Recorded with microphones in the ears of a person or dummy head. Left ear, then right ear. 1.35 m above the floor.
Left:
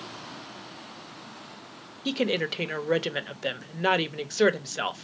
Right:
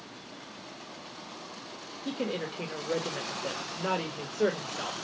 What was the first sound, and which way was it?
A woman speaking, 60° left (ahead or behind).